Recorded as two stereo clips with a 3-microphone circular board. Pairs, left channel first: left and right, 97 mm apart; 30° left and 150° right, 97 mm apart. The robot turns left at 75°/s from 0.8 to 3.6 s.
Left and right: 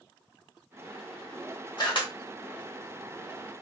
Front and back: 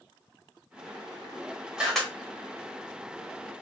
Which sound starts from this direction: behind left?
A camera shutter, at 1.8 s.